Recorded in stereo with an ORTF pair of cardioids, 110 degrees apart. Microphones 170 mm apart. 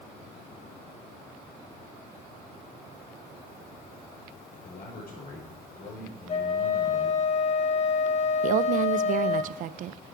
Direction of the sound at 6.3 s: 40° left.